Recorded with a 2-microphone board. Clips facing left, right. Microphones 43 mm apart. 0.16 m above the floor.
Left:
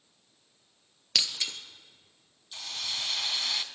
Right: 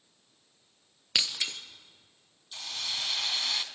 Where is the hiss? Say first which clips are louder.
Even; centre (ahead or behind), 1.0 m.